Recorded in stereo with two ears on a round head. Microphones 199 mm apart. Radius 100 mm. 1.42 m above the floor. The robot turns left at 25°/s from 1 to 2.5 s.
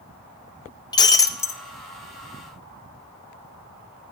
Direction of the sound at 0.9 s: 20° left (ahead or behind).